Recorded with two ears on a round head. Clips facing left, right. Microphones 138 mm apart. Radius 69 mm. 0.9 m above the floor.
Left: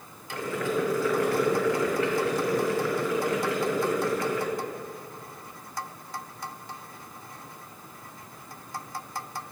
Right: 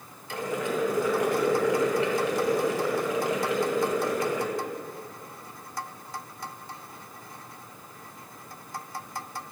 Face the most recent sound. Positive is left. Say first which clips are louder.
# left 1 dB
turn(degrees=-20)  # may be behind; listen again after turning